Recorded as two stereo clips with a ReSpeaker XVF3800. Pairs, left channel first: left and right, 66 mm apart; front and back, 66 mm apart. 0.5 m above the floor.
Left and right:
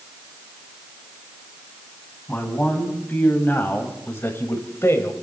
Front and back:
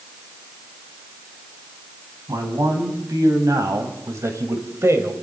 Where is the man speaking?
155° left, 4 m; by 5.1 s 135° left, 2.5 m.